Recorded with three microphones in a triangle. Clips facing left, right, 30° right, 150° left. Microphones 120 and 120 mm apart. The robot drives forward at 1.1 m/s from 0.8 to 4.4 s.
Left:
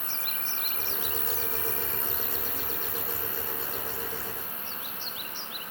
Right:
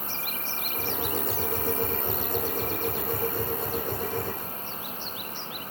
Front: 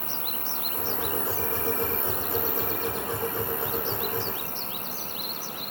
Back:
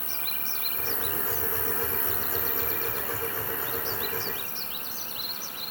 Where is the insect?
45° left; by 5.7 s 165° left.